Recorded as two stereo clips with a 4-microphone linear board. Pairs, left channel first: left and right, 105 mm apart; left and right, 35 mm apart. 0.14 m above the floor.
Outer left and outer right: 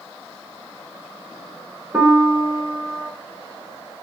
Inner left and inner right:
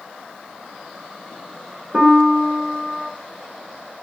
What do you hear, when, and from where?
1.9 s a piano: 15° right (ahead or behind), 0.6 m